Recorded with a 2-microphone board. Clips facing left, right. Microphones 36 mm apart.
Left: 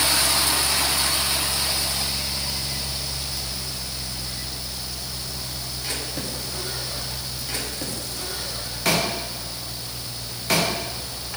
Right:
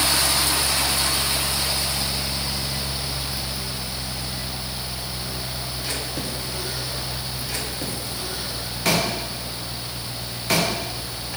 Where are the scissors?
I don't hear scissors.